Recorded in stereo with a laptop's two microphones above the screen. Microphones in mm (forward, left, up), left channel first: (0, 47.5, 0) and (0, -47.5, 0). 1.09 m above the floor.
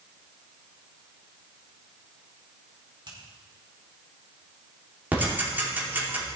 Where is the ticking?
20° right (ahead or behind), 3 m.